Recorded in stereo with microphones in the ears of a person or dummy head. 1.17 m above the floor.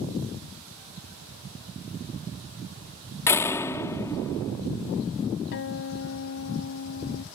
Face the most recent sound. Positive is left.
turn(degrees=60)  # may be behind; listen again after turning